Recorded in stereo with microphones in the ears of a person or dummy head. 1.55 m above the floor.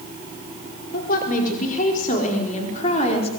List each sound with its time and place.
0.9 s a woman speaking: 55° left (ahead or behind), 4.5 m; by 3.3 s 35° left (ahead or behind), 4.5 m